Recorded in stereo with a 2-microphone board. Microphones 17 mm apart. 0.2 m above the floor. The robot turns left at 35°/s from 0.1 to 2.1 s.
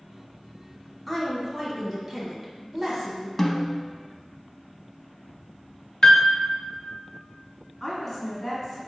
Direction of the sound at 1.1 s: 10° right.